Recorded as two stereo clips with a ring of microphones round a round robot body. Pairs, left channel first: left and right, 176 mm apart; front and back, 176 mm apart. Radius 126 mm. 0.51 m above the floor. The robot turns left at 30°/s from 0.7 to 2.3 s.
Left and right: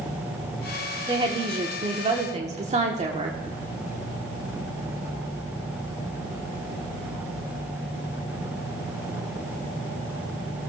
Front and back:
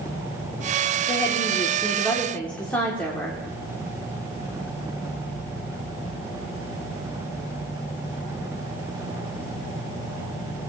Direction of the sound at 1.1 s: 40° right.